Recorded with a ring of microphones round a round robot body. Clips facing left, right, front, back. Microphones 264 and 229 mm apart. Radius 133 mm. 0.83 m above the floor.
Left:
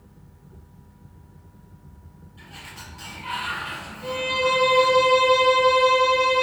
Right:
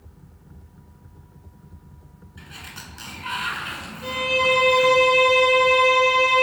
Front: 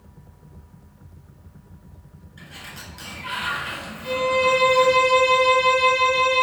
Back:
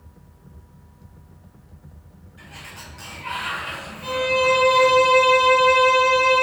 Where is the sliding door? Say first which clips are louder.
Right 3 dB, front 1 dB; 60° right, 1.2 m.